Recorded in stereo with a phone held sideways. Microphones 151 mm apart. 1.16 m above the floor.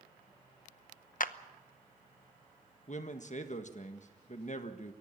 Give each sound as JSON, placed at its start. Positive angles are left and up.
{"t": 1.2, "sound": "a clap", "side_deg": 65, "distance_m": 0.8}
{"t": 2.9, "sound": "a man speaking", "side_deg": 55, "distance_m": 1.5}